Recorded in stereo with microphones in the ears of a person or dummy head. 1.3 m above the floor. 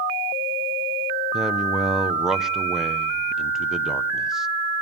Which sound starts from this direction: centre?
A man speaking, at 1.3 s.